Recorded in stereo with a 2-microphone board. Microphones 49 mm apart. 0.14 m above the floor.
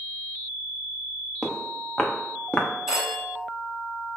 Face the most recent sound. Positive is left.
turn(degrees=-10)  # may be behind; listen again after turning